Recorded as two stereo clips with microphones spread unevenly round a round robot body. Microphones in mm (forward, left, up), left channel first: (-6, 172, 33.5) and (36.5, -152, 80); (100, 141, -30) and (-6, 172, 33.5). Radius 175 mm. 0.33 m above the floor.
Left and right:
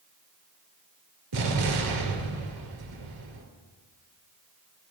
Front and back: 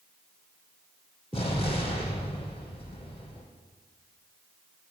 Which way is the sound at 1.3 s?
105° right.